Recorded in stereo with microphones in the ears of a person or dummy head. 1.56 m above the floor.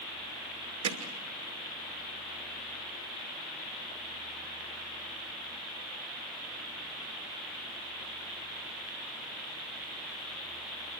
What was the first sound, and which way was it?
Hammering, 90° right.